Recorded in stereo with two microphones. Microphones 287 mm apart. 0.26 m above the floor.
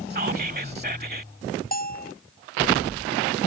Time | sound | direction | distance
0.1 | whispering | 35° right (ahead or behind) | ?
1.7 | a bell | 30° left (ahead or behind) | ?